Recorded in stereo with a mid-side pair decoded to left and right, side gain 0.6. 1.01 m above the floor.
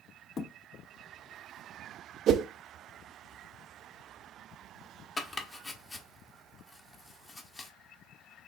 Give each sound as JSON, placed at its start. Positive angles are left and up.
{"t": 0.4, "sound": "a thud", "azimuth_deg": 40, "distance_m": 0.8}
{"t": 2.3, "sound": "a whoosh", "azimuth_deg": -55, "distance_m": 0.5}
{"t": 5.2, "sound": "chopping", "azimuth_deg": 20, "distance_m": 1.0}